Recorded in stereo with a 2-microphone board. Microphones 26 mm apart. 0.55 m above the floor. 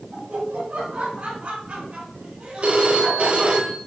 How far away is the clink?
No clink in this recording.